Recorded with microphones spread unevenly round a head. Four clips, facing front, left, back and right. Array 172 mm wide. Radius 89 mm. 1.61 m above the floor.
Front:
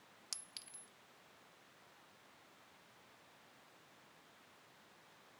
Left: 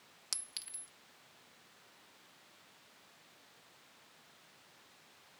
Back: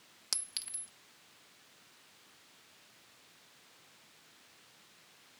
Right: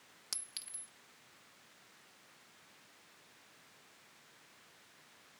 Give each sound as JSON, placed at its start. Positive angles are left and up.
{"t": 0.3, "sound": "a clink", "azimuth_deg": 170}